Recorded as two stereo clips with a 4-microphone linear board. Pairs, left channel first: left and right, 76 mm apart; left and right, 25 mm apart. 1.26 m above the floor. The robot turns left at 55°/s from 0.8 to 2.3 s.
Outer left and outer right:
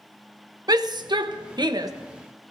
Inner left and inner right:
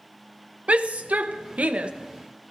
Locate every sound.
0.7 s a shout: 65° right, 0.8 m; by 1.9 s 125° right, 0.8 m